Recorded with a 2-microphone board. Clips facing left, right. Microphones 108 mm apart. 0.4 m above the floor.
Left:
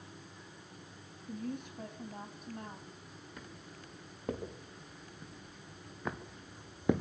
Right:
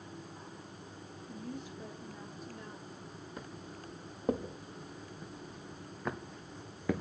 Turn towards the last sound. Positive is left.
turn(degrees=25)  # may be behind; listen again after turning